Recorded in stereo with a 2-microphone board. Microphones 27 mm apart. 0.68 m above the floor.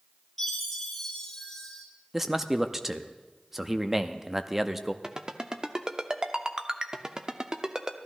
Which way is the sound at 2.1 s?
10° right (ahead or behind).